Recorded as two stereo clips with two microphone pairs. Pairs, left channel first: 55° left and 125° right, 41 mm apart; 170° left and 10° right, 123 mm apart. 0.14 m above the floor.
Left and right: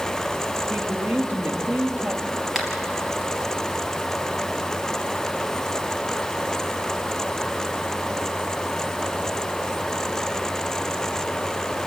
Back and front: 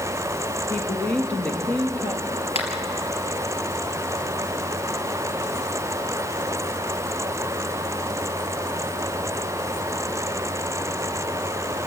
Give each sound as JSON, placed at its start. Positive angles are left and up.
{"t": 0.7, "sound": "a woman speaking", "azimuth_deg": -115, "distance_m": 2.5}
{"t": 2.5, "sound": "a finger snap", "azimuth_deg": 155, "distance_m": 3.0}